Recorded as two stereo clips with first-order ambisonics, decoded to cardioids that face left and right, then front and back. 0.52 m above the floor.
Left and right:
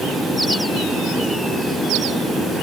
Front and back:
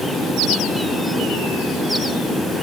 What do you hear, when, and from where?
Only background noise.